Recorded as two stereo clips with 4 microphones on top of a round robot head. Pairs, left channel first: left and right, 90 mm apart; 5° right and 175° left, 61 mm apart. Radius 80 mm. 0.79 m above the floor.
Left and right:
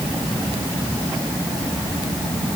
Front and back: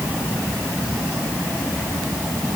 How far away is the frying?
No frying in this recording.